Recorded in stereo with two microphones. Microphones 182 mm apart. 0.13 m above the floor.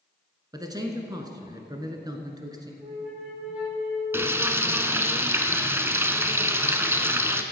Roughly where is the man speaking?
Right.